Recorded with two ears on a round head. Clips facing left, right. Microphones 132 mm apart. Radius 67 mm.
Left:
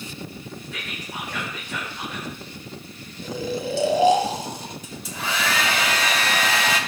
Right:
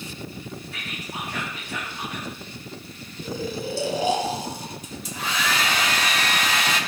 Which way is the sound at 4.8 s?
75° left (ahead or behind).